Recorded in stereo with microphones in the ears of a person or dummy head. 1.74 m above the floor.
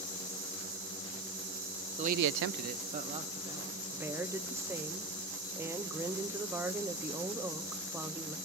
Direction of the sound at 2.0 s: 30° right (ahead or behind).